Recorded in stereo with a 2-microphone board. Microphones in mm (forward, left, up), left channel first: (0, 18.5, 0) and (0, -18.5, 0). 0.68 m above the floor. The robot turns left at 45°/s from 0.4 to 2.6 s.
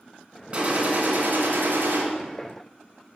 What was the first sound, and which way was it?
A gunshot, 35° right.